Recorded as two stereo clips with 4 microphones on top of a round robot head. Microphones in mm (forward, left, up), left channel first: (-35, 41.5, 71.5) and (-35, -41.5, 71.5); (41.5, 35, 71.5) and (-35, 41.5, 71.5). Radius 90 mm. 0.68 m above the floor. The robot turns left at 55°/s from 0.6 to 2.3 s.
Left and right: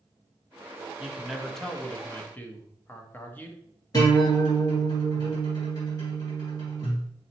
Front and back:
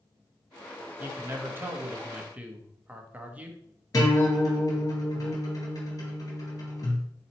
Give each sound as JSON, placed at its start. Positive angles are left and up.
{"t": 1.0, "sound": "a man speaking", "azimuth_deg": -160, "distance_m": 0.9}
{"t": 3.9, "sound": "a guitar", "azimuth_deg": 35, "distance_m": 1.9}